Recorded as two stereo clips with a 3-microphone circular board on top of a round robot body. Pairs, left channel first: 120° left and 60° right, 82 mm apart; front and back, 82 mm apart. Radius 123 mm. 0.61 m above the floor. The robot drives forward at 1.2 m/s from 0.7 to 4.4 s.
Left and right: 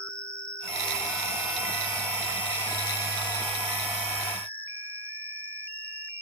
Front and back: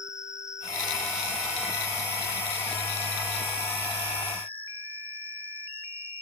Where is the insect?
100° left; by 6.2 s 115° left.